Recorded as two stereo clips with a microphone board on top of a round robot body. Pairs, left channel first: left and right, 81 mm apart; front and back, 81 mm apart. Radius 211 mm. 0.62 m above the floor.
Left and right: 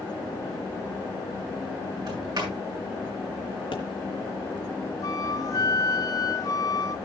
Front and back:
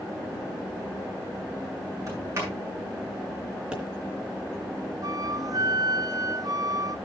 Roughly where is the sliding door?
Behind right.